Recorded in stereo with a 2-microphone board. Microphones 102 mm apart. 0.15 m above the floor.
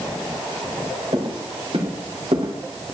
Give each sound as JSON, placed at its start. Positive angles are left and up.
{"t": 1.1, "sound": "footsteps", "side_deg": -55, "distance_m": 4.5}